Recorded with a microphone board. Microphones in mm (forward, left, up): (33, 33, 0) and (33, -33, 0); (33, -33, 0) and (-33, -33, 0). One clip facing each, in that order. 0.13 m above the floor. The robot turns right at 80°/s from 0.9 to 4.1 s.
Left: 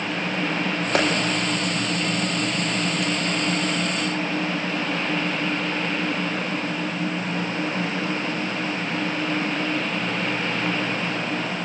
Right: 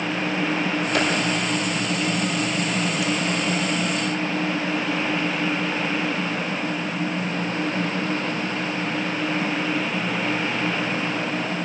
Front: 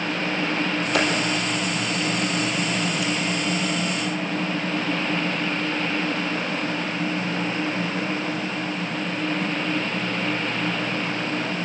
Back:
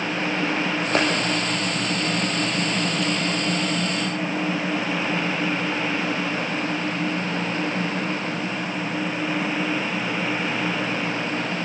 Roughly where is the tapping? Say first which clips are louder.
Left 2 dB, back 1 dB; behind left.